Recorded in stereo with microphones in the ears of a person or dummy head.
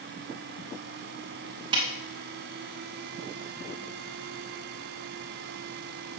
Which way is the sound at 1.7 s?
20° right (ahead or behind).